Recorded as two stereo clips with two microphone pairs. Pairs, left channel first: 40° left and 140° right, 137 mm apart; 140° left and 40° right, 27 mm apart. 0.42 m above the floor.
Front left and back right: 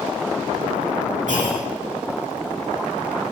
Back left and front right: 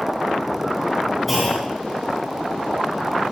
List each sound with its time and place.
1.3 s a clunk: 130° right, 2.5 m